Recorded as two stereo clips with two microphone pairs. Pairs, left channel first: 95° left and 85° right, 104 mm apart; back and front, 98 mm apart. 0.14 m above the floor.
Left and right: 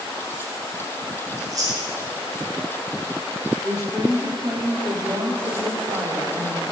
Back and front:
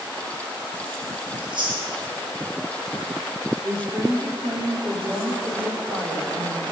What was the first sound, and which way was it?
Chewing, 30° right.